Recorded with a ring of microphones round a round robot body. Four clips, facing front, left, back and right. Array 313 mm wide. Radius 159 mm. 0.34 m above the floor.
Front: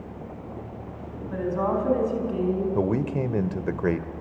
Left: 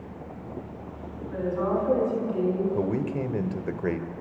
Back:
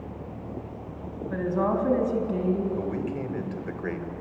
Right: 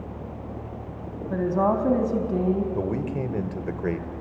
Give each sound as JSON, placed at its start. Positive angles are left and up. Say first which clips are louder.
{"t": 1.3, "sound": "a woman speaking", "louder": "right 4 dB, even", "azimuth_deg": -110, "distance_m": 3.5}
{"t": 2.8, "sound": "a man speaking", "louder": "even, front 5 dB", "azimuth_deg": 0, "distance_m": 1.4}